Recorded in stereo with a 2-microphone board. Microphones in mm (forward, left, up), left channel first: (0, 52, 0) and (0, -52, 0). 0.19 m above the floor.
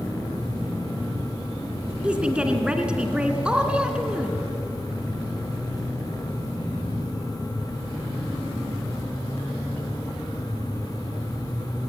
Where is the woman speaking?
10° right (ahead or behind), 2.5 m.